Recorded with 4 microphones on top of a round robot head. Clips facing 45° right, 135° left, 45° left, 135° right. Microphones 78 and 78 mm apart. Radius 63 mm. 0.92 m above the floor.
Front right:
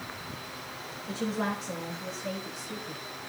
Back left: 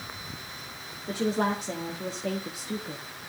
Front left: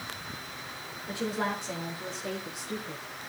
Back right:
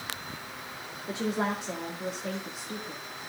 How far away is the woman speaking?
About 2.5 m.